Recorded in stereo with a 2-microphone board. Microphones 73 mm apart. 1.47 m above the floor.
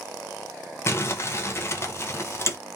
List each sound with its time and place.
0.9 s crumpling: 35° left (ahead or behind), 0.6 m